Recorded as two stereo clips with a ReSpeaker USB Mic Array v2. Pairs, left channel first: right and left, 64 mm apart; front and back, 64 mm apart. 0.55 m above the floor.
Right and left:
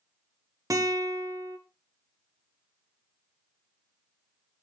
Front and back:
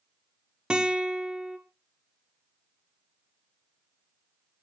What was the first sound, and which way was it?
A guitar, 110° left.